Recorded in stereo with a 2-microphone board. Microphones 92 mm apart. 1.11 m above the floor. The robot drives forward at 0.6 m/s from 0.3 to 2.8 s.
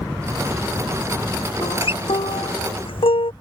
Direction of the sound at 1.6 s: 80° left.